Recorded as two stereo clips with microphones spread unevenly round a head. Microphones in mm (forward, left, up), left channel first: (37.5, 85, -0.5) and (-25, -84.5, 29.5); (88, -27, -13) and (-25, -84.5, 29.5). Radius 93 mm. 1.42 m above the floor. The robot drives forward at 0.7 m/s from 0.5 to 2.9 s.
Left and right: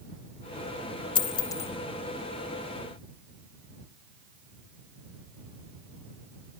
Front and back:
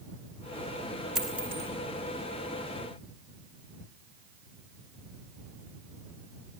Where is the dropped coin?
135° left, 1.2 m; by 1.7 s 150° left, 1.5 m.